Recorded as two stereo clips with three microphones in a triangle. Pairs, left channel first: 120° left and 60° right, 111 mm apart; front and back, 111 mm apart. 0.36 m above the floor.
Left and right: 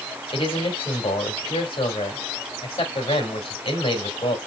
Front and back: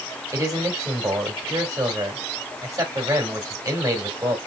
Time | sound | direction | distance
0.3 | a man speaking | 125° left | 2.5 m